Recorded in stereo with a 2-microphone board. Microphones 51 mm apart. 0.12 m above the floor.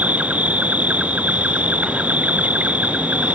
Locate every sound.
0.0 s an insect: 25° right (ahead or behind)